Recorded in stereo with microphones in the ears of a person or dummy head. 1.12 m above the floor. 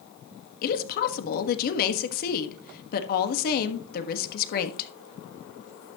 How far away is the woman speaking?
About 1.3 m.